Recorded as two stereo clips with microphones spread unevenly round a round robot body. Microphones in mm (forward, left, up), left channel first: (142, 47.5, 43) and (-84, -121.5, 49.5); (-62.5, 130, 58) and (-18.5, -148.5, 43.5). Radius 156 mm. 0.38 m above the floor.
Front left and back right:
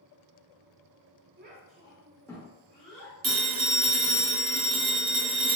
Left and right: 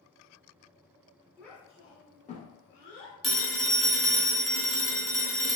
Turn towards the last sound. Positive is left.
turn(degrees=-170)